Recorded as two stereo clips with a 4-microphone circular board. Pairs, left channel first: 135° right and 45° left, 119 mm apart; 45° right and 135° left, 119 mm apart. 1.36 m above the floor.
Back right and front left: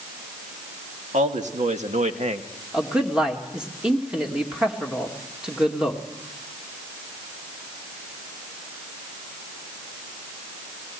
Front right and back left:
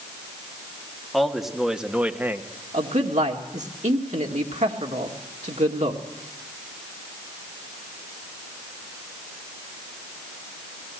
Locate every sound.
1.1 s a man speaking: 45° left, 2 m; by 2.5 s 65° left, 1.1 m
2.7 s a man speaking: 130° left, 2 m